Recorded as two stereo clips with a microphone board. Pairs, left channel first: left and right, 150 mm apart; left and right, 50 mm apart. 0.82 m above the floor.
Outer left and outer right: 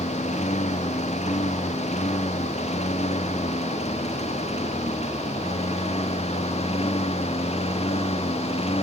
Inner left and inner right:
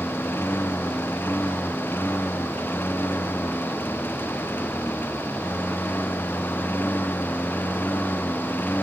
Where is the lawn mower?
50° left (ahead or behind); by 8.8 s 40° left (ahead or behind).